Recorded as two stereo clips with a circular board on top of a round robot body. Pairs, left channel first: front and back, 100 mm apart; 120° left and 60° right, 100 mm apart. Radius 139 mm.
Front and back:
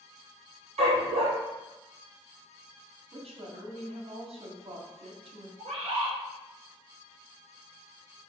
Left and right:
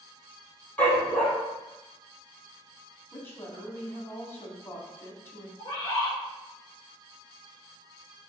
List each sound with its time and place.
0.8 s a dog barking: 165° right, 3.5 m
3.1 s a woman speaking: 170° right, 3 m
5.6 s a bird: 170° left, 5 m